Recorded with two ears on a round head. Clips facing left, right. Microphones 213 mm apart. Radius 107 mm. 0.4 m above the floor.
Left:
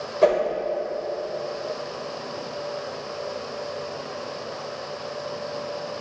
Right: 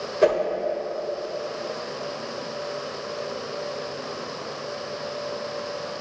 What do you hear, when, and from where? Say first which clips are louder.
0.2 s a whoosh: left 1 dB; 20° right (ahead or behind), 1.0 m